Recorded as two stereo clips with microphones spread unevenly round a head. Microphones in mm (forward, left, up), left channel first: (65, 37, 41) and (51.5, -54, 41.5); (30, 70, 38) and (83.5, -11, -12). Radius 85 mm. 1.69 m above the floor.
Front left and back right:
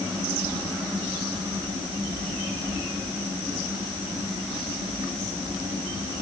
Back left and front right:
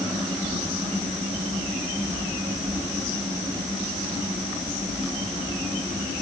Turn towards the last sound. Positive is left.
No sound to turn to.